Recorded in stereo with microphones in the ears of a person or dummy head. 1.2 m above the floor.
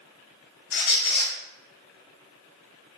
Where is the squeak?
55° left (ahead or behind), 0.8 m.